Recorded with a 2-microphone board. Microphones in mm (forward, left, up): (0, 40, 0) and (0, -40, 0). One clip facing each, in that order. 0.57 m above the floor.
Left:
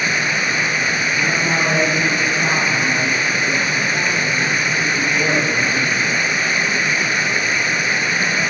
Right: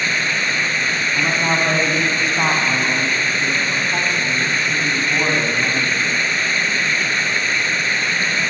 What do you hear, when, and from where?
0.0 s running water: 10° left (ahead or behind), 1.4 m
1.1 s a man speaking: 80° right, 4.5 m